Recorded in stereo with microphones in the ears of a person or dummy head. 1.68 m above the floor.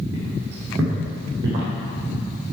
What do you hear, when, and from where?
0.1 s footsteps: 10° right (ahead or behind), 2.5 m; by 1.7 s 25° right (ahead or behind), 2.5 m